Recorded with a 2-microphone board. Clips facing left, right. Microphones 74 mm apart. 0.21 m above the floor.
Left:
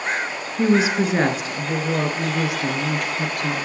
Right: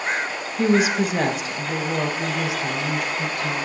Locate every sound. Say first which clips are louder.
0.6 s a woman speaking: left 1 dB; 25° left (ahead or behind), 2.5 m; by 3.5 s 65° left (ahead or behind), 3 m